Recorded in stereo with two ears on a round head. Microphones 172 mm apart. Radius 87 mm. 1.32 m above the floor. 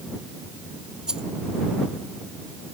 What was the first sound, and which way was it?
A rattle, 5° right (ahead or behind).